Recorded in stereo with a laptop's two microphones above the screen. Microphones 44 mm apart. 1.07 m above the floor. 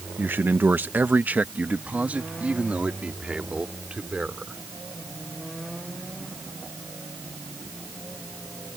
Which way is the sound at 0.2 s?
50° right (ahead or behind).